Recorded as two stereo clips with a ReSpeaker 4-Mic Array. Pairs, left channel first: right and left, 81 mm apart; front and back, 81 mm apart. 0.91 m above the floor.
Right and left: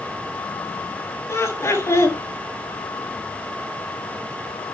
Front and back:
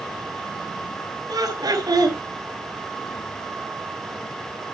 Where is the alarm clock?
I don't hear an alarm clock.